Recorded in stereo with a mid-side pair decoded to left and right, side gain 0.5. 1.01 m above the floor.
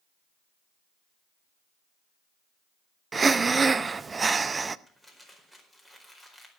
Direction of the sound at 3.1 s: 30° right.